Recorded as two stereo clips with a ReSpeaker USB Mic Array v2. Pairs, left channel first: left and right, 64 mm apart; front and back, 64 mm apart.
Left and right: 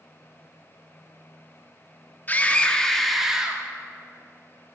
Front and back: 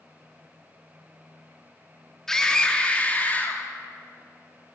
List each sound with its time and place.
2.3 s a scream: 75° left, 1.1 m; by 3.6 s 30° right, 1.2 m